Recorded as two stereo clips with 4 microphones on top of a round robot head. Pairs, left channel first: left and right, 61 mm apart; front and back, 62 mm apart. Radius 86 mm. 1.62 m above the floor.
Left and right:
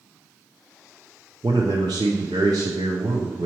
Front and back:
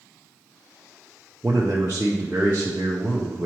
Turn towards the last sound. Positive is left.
turn(degrees=-105)